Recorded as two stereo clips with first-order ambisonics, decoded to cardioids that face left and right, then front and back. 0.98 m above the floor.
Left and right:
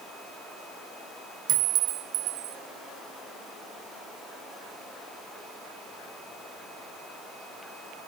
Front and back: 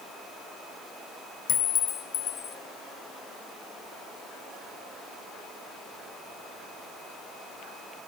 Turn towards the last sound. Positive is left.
turn(degrees=-60)